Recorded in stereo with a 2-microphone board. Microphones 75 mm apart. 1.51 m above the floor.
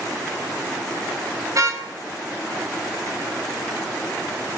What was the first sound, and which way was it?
A car horn, 45° right (ahead or behind).